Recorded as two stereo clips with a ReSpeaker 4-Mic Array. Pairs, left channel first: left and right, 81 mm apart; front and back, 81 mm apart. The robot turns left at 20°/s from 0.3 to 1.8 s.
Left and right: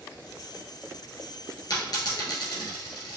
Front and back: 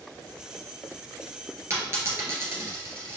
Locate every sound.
1.7 s a dropped coin: 125° left, 1.9 m; by 3.2 s 120° left, 1.9 m